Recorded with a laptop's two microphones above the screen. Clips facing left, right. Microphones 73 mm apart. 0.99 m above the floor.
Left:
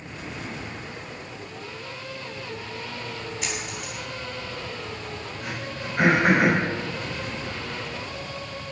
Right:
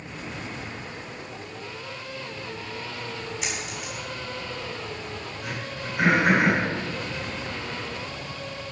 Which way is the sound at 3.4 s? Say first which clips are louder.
Even; 5° right (ahead or behind).